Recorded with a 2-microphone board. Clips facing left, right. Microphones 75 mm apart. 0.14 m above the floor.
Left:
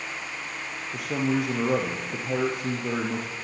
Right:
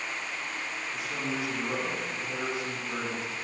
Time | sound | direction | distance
0.9 | a man speaking | 55° left (ahead or behind) | 3 m